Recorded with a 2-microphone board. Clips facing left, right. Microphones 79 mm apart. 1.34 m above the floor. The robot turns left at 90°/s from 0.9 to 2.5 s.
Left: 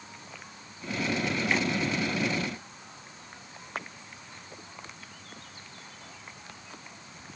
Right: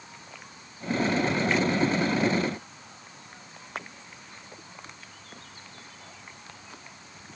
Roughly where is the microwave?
I don't hear a microwave.